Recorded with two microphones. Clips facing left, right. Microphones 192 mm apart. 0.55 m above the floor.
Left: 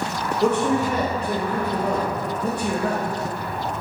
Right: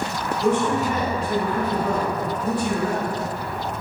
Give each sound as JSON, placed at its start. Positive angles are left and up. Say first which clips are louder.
{"t": 0.4, "sound": "a man speaking", "louder": "left 1 dB", "side_deg": 65, "distance_m": 1.7}